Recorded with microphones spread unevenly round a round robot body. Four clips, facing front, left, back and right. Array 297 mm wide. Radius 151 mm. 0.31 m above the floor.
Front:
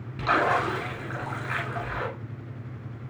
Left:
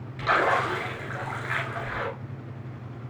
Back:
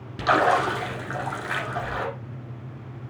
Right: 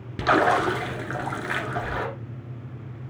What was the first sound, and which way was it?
A splash, 95° right.